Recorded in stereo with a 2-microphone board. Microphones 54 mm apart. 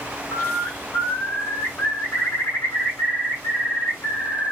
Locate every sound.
0.3 s a bird: 80° left, 1.9 m